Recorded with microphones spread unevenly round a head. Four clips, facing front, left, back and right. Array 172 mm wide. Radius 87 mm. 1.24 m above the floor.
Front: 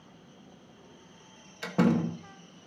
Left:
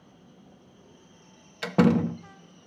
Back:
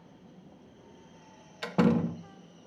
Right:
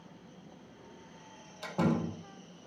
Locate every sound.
1.6 s a door slam: 80° left, 1.3 m